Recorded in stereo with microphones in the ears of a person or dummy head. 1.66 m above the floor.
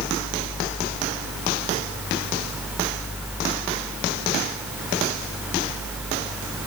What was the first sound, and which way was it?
Only background noise.